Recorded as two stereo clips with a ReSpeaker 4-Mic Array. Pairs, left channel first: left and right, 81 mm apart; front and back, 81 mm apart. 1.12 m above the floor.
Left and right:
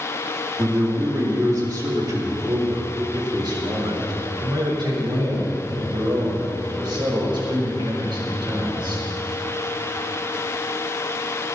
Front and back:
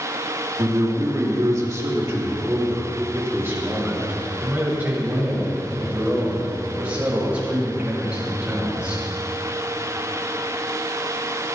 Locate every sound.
0.6 s a man speaking: 140° right, 2 m; by 9.0 s 105° right, 6.5 m